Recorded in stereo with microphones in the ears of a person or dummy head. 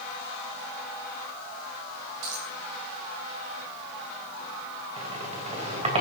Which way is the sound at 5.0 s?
35° right (ahead or behind).